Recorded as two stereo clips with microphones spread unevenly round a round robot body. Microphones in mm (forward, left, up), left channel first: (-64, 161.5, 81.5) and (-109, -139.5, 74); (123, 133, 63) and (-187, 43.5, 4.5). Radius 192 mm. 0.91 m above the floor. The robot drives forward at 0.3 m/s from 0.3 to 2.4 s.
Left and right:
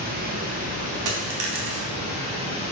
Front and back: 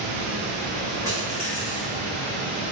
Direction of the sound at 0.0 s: 160° right.